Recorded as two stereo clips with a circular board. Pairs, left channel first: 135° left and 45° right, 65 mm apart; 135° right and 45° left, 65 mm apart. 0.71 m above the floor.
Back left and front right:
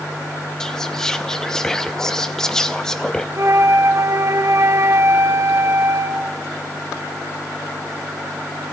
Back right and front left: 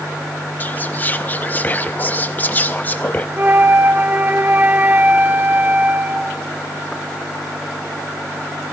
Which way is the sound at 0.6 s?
155° right.